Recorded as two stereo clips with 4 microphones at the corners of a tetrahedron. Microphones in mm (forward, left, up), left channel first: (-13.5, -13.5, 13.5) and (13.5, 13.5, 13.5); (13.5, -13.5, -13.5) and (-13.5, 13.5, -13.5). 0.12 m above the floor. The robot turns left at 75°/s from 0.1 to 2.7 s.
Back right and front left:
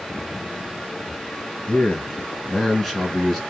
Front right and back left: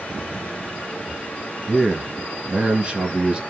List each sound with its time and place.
1.7 s a man speaking: 145° right, 1.3 m; by 3.4 s 140° left, 1.3 m